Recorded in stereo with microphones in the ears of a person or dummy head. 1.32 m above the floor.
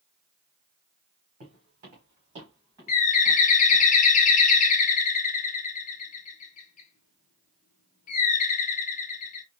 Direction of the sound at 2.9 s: 45° left (ahead or behind).